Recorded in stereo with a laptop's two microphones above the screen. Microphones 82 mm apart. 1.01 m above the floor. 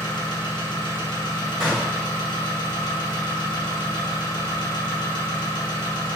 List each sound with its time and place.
0.0 s an engine running: 65° left (ahead or behind), 1.4 m
1.6 s a gunshot: centre (ahead or behind), 2.5 m